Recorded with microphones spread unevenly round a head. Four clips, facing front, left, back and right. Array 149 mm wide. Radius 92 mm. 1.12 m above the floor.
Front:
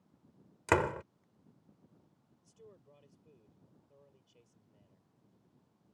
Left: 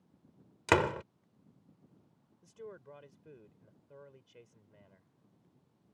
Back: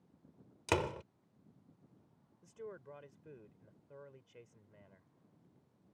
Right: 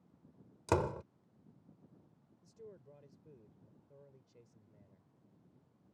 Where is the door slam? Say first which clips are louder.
Left 5 dB, front 5 dB; 75° left.